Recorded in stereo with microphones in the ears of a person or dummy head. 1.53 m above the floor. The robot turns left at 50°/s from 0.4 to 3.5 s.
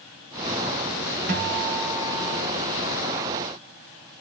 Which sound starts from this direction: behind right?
A guitar, at 1.3 s.